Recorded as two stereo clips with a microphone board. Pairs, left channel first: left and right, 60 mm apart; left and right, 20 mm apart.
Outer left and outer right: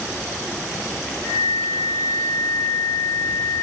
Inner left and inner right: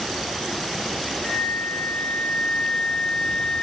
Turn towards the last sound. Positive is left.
turn(degrees=50)  # may be behind; listen again after turning